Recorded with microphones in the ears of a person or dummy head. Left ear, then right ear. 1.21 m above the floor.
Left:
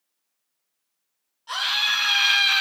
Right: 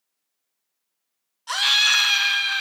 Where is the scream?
45° right (ahead or behind), 0.9 m; by 2.6 s 20° left (ahead or behind), 0.9 m.